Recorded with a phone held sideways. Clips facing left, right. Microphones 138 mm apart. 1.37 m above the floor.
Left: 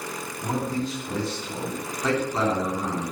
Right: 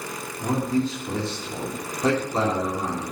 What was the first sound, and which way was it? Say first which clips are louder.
A man speaking: right 4 dB; 30° right (ahead or behind).